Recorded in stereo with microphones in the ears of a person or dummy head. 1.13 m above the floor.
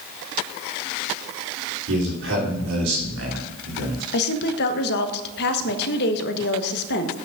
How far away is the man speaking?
About 3.5 m.